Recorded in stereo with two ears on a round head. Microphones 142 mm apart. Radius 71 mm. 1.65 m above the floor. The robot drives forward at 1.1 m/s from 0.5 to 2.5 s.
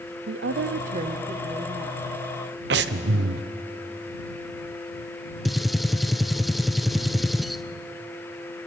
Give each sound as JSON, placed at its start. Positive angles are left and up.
{"t": 0.3, "sound": "a woman speaking", "side_deg": -85, "distance_m": 0.6}
{"t": 2.7, "sound": "breathing", "side_deg": -70, "distance_m": 0.9}
{"t": 5.5, "sound": "a gunshot", "side_deg": 0, "distance_m": 0.6}